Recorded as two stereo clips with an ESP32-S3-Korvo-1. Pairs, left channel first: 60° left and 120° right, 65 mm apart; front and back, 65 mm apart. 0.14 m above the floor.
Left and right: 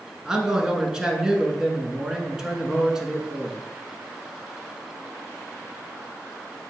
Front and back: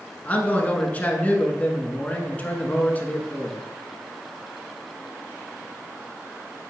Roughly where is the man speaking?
Ahead right.